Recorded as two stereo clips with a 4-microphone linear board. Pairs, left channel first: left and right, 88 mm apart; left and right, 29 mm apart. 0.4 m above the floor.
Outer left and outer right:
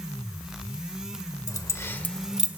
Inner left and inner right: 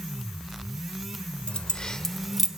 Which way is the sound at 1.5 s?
45° left (ahead or behind).